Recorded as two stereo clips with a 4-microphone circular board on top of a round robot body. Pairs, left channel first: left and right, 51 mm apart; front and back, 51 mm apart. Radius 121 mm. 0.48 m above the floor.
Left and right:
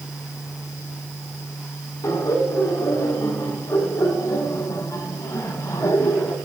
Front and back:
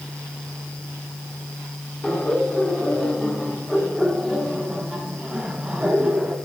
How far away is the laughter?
About 5.5 m.